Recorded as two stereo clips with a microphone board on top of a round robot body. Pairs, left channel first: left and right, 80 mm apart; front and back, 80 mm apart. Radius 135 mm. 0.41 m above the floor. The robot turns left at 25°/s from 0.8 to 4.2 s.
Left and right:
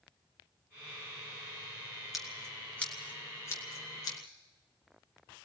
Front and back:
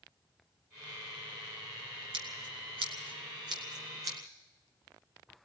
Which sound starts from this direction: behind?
Scissors, at 2.1 s.